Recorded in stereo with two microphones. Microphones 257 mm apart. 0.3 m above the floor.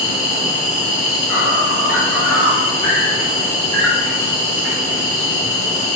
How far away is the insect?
About 1.5 m.